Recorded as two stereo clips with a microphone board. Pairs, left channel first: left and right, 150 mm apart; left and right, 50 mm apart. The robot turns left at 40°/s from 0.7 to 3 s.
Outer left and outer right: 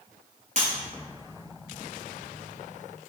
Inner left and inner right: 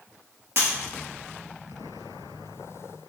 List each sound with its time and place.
0.6 s breaking glass: 50° right (ahead or behind), 1.9 m